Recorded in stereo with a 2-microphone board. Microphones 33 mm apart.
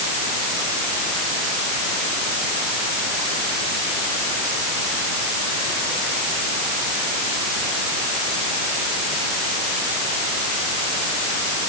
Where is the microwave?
No microwave in this recording.